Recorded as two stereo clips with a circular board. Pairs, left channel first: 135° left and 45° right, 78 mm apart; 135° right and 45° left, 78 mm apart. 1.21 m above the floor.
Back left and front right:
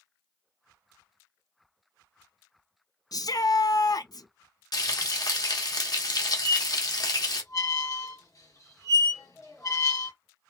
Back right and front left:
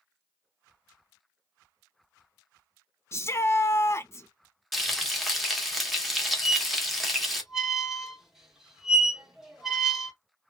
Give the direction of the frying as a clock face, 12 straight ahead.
8 o'clock.